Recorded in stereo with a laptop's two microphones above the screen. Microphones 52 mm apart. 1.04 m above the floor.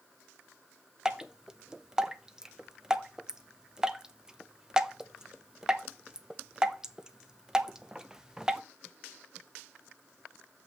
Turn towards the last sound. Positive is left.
turn(degrees=-10)  # may be behind; listen again after turning